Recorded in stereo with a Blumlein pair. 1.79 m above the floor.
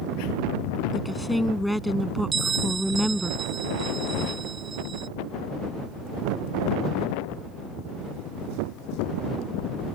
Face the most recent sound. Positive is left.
turn(degrees=-20)